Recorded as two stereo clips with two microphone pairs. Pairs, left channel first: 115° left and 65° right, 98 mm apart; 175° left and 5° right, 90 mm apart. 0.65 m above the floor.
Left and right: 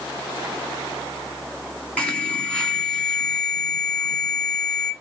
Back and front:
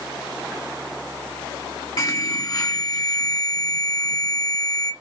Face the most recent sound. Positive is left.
turn(degrees=-170)